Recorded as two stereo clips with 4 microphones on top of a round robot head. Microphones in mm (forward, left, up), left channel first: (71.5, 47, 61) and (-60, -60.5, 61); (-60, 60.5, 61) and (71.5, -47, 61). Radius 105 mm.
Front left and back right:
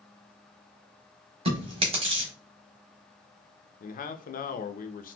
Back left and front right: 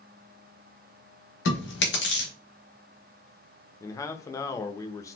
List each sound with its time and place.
1.4 s chewing: 160° left, 1.1 m
3.8 s a man speaking: 70° left, 0.6 m